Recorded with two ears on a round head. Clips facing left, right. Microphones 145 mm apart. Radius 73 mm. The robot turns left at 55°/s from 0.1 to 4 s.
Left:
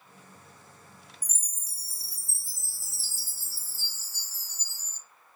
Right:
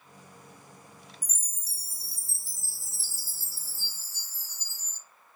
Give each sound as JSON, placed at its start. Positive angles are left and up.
{"t": 1.2, "sound": "a chime", "azimuth_deg": -115, "distance_m": 2.5}